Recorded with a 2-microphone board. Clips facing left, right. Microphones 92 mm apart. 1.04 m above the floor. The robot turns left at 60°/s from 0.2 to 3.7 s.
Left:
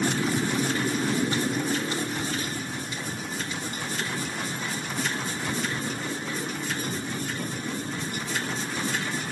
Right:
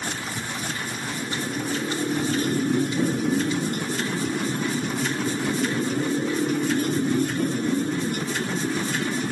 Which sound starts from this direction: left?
A motorcycle, at 0.0 s.